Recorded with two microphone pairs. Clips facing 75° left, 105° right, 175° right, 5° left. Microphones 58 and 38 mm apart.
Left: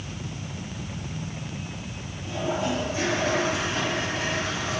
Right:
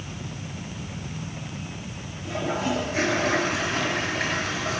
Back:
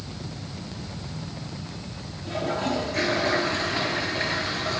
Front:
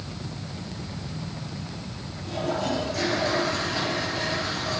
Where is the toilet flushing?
125° right, 7.5 m.